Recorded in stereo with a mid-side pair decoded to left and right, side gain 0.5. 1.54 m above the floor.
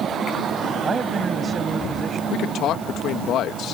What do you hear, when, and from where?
0.8 s a man speaking: 40° right
2.3 s a man speaking: 65° left